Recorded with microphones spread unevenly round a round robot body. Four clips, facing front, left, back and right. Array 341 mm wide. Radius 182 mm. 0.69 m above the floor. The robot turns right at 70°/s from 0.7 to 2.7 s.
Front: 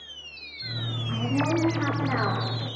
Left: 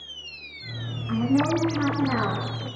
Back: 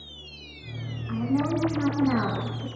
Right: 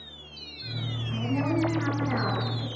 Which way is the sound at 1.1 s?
90° left.